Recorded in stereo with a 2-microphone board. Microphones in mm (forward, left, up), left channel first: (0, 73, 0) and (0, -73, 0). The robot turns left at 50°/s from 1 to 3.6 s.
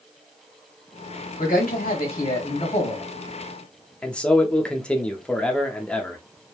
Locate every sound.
1.4 s a man speaking: 115° left, 1.3 m; by 3.0 s 35° left, 1.3 m
4.0 s a man speaking: 5° left (ahead or behind), 0.6 m